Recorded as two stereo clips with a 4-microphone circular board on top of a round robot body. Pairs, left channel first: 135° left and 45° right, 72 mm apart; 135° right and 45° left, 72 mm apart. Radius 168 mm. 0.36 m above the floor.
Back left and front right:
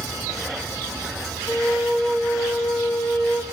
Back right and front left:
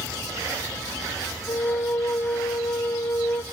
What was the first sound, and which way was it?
A flute, 150° right.